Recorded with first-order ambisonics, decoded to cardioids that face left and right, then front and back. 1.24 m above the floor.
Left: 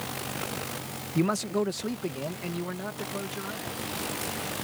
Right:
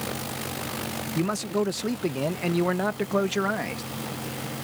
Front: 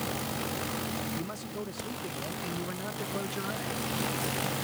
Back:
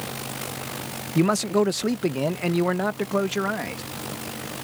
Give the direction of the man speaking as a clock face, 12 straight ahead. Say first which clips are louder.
Even, back 16 dB; 6 o'clock.